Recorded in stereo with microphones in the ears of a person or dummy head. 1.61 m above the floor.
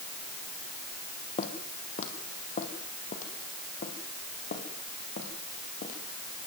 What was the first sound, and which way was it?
Footsteps, 40° left (ahead or behind).